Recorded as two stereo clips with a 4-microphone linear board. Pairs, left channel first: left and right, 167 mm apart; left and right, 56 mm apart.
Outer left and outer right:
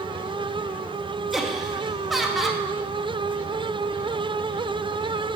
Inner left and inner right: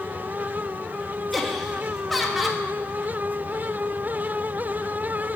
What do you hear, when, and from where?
1.3 s laughter: centre (ahead or behind), 1.0 m